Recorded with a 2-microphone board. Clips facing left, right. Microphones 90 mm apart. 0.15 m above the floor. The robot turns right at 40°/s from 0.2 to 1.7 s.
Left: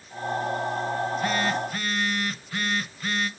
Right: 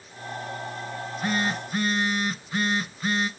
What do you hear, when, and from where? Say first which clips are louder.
0.9 s a phone buzzing: right 2 dB; 15° right (ahead or behind), 0.9 m; by 3.3 s 20° right (ahead or behind), 0.9 m